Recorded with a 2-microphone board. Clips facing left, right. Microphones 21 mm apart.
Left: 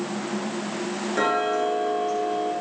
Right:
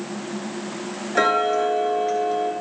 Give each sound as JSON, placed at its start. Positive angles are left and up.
{"t": 1.1, "sound": "ticking", "side_deg": -30, "distance_m": 2.0}